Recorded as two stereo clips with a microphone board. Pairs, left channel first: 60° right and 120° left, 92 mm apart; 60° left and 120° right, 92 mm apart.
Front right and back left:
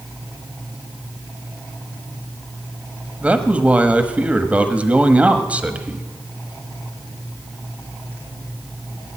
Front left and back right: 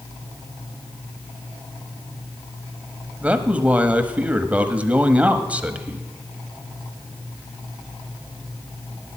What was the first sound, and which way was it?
A man speaking, straight behind.